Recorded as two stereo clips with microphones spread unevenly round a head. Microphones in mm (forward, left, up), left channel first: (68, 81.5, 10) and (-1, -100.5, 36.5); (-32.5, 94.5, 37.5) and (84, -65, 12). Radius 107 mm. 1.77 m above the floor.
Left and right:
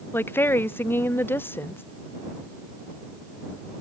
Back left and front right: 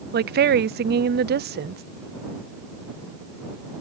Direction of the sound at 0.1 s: 10° right.